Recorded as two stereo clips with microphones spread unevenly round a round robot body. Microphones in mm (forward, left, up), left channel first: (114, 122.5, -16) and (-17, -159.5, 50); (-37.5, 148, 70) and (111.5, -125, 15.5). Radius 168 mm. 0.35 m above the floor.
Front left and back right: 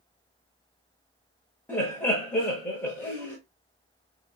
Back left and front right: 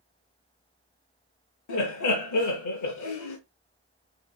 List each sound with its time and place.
1.7 s laughter: 135° left, 1.1 m